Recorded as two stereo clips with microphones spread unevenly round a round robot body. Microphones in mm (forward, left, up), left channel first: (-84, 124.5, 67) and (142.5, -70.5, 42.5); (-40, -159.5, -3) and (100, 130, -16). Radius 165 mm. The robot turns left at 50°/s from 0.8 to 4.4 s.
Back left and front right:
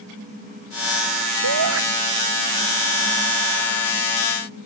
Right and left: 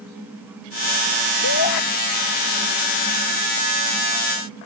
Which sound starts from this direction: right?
A shout, at 1.4 s.